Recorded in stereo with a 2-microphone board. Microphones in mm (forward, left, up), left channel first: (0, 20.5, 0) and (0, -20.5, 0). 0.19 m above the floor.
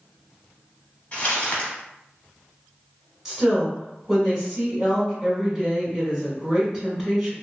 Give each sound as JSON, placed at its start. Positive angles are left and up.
{"t": 1.1, "sound": "crumpling", "side_deg": 30, "distance_m": 1.1}
{"t": 3.2, "sound": "a woman speaking", "side_deg": -10, "distance_m": 1.6}